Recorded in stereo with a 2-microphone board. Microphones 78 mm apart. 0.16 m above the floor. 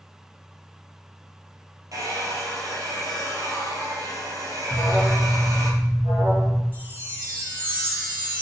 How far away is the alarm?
About 4 m.